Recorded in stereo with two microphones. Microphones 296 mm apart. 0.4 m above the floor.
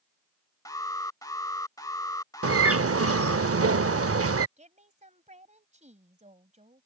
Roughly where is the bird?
Right.